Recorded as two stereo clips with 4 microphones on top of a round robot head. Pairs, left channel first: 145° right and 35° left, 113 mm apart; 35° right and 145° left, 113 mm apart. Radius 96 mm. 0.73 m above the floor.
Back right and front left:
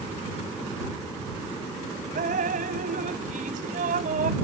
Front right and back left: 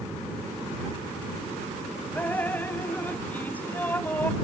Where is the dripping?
40° left.